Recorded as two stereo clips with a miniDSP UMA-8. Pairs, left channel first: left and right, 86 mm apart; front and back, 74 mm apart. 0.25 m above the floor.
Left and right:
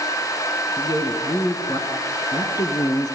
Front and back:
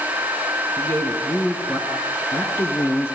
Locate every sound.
0.8 s a man speaking: 45° left, 5 m; by 3.2 s 50° left, 4 m